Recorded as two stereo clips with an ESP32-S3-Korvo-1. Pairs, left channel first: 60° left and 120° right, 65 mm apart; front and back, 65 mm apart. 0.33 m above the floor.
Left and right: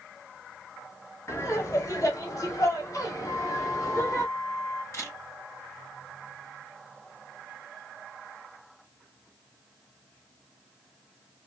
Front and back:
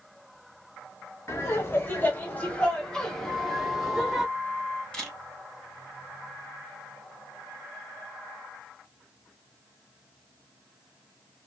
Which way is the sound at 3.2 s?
60° left.